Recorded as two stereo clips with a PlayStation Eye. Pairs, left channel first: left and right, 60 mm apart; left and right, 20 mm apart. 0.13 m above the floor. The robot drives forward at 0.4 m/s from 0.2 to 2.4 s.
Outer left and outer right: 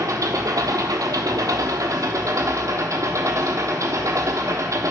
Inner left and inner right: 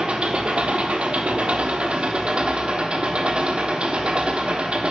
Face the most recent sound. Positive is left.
turn(degrees=-55)  # may be behind; listen again after turning